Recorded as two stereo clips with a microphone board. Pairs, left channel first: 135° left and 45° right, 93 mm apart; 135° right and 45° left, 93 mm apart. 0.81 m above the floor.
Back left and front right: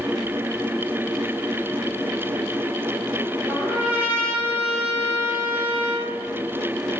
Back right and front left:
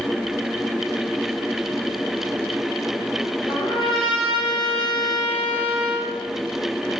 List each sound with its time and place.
3.5 s a trumpet: 115° right, 2.5 m